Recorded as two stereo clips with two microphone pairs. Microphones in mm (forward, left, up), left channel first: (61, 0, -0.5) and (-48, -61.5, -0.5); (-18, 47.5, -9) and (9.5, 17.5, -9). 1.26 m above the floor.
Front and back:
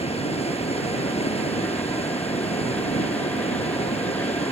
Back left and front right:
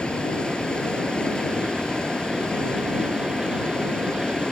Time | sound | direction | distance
0.0 | running water | 65° left | ?